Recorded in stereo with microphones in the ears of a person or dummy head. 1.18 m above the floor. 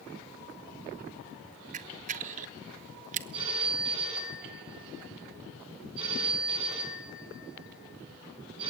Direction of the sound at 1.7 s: 40° right (ahead or behind).